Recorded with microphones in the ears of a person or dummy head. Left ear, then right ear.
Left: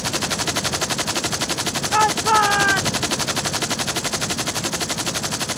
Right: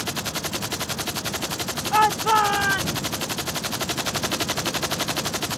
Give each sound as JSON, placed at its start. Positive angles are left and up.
{"t": 1.9, "sound": "a shout", "side_deg": -10}